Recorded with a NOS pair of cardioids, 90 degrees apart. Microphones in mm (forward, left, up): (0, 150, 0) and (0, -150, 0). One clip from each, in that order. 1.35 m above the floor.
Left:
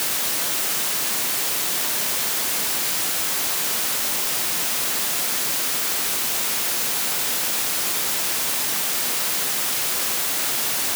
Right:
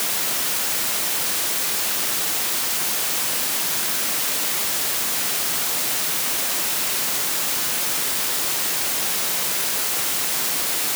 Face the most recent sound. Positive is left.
No sound to turn to.